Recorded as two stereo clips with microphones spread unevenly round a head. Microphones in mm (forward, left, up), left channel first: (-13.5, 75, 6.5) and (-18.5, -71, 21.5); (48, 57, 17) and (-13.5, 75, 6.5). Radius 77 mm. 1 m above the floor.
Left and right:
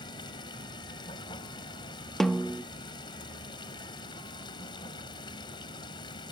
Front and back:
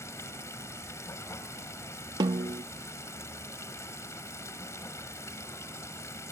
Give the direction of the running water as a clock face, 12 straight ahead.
11 o'clock.